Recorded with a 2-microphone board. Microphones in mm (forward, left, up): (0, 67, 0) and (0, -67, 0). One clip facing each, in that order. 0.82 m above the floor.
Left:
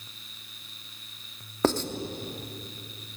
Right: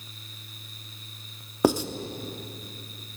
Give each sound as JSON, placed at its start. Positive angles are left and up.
{"t": 1.6, "sound": "writing", "side_deg": -10, "distance_m": 0.9}